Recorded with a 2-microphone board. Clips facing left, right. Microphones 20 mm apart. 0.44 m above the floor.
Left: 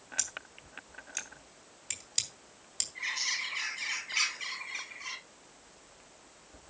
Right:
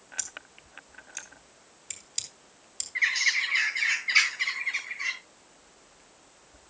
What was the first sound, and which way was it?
Scissors, 20° left (ahead or behind).